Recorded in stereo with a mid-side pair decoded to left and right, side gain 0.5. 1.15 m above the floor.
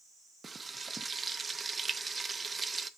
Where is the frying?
30° right, 0.7 m.